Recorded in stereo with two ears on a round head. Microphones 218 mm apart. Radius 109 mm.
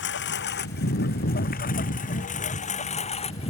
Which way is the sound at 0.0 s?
50° left (ahead or behind).